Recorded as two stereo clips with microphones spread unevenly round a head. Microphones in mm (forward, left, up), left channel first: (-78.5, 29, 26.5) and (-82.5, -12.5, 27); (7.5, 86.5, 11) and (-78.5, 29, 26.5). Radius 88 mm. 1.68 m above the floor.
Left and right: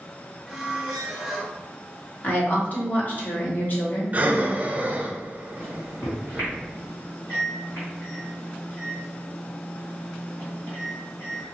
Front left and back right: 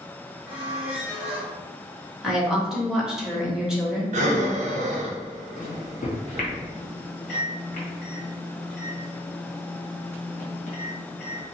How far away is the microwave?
About 1.3 m.